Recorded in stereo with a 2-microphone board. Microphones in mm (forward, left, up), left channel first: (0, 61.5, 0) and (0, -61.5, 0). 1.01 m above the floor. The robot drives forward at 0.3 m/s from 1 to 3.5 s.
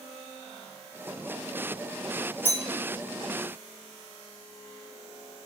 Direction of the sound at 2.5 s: 85° right.